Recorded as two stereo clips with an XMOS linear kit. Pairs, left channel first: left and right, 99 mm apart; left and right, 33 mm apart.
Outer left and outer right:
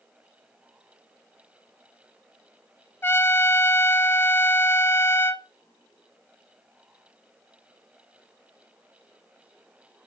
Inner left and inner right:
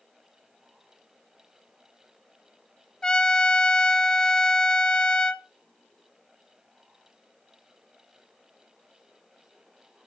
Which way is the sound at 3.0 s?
25° left (ahead or behind).